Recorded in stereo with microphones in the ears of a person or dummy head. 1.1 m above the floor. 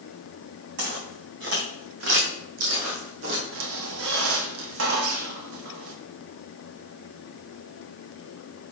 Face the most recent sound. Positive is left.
turn(degrees=-75)  # may be behind; listen again after turning